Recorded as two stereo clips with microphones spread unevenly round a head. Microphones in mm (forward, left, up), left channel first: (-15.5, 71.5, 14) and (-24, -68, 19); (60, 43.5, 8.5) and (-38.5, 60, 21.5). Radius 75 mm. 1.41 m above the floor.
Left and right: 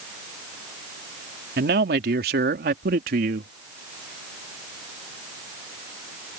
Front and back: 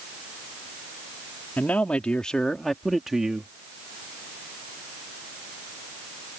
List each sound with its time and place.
1.6 s a man speaking: 90° right; by 3.5 s 105° right